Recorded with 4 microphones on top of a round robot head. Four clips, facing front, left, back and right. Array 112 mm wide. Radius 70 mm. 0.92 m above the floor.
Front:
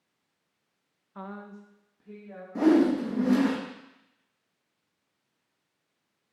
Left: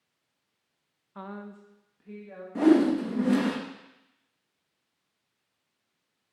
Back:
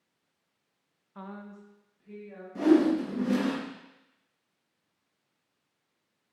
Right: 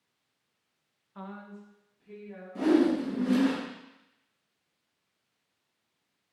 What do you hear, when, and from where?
1.1 s a woman speaking: 50° left, 0.7 m; by 2.5 s 55° left, 1.7 m
2.5 s a whoosh: 45° left, 1.1 m